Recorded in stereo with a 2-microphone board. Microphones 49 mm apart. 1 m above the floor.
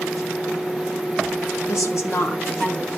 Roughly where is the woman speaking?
Left.